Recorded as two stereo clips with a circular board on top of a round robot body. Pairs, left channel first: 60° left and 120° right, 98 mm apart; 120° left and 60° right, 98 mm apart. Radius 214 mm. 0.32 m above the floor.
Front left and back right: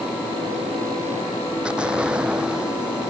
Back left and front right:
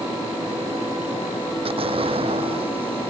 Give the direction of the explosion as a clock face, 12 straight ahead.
1 o'clock.